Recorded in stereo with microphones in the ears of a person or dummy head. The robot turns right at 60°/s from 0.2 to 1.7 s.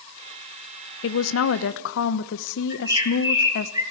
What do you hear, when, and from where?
1.0 s a woman speaking: 70° left, 0.9 m; by 3.7 s 110° left, 0.9 m
2.7 s a bird: 15° right (ahead or behind), 10 m